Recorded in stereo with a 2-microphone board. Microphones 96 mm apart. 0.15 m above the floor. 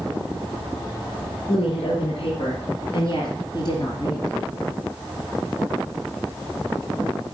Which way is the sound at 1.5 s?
70° left (ahead or behind).